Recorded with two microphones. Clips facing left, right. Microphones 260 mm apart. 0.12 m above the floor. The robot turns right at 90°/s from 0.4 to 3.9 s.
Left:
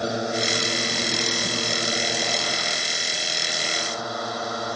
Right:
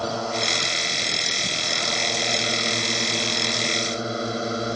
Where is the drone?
20° left; by 4.8 s 25° right.